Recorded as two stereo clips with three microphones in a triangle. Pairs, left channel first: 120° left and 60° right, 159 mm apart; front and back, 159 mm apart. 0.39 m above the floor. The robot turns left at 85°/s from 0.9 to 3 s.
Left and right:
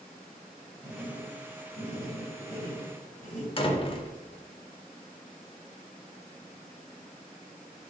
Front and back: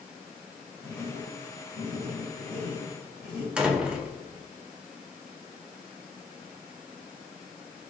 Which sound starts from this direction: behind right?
Writing, at 0.8 s.